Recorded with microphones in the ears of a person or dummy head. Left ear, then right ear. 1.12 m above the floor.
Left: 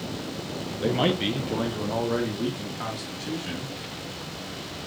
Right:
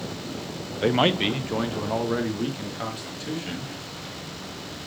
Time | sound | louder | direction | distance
0.8 | a man speaking | right 3 dB | 35° right (ahead or behind) | 0.6 m